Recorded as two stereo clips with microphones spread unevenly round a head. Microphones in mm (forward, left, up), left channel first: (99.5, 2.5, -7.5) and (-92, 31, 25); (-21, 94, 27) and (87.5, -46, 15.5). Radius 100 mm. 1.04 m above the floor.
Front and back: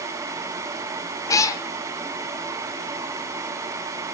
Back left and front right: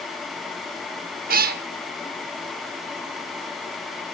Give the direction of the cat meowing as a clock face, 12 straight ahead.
3 o'clock.